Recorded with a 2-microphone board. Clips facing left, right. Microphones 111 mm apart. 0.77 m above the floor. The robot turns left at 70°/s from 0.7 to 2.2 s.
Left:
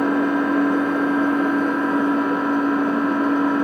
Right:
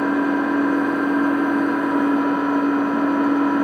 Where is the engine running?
70° left, 4.5 m; by 3.6 s 35° right, 4.5 m.